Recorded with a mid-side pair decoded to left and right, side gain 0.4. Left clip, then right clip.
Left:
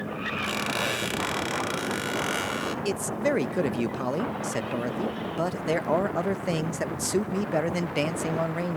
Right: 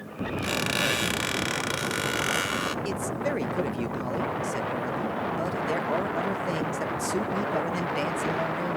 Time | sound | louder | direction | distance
0.4 | a squeak | right 3 dB | 30° right | 1.7 m
2.9 | a man speaking | left 2 dB | 40° left | 0.7 m